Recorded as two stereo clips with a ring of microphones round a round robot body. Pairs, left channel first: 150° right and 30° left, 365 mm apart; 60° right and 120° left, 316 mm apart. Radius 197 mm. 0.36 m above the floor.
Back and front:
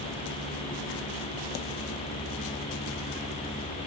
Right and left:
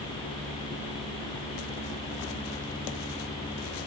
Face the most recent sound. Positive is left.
No sound to turn to.